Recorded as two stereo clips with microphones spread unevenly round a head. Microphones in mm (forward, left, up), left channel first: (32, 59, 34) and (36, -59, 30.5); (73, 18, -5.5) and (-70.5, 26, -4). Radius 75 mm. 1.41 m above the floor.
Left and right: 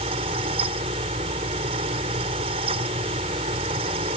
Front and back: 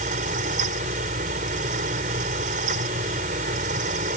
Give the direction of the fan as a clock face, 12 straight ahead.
5 o'clock.